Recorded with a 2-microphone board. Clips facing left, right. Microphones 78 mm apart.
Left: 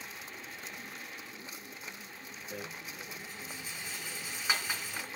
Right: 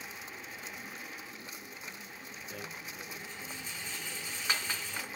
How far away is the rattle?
About 3.5 m.